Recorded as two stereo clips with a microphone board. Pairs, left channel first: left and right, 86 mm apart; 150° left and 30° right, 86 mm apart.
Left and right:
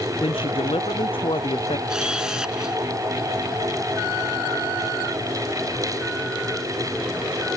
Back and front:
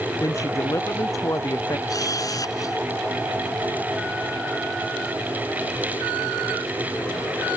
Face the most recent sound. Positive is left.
turn(degrees=-170)